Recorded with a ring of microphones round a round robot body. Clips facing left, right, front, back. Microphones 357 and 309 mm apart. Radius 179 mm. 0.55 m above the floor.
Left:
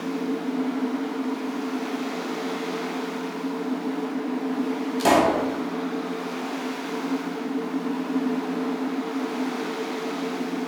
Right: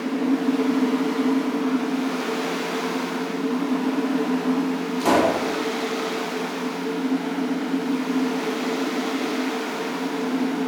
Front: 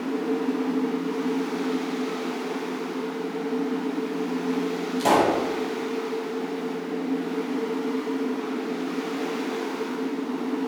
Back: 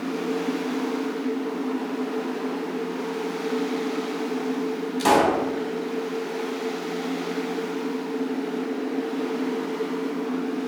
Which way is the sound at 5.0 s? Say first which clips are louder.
Even, back 1 dB; 110° left.